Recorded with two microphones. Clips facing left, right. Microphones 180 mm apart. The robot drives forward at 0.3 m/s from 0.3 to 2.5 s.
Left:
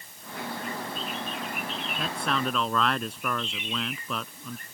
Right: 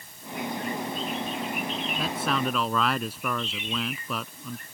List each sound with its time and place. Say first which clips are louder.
2.0 s a man speaking: right 1 dB; 5° right (ahead or behind)